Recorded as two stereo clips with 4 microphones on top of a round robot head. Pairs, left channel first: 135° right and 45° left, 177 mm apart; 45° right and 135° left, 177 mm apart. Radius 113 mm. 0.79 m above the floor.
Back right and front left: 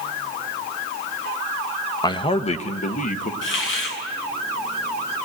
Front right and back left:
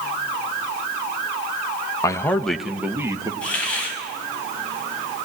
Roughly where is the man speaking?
Right.